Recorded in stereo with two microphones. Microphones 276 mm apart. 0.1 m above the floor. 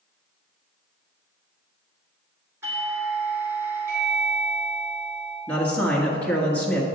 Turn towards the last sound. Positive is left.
turn(degrees=5)  # may be behind; listen again after turning